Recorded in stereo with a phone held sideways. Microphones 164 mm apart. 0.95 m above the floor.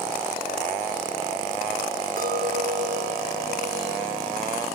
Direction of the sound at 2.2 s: 60° right (ahead or behind).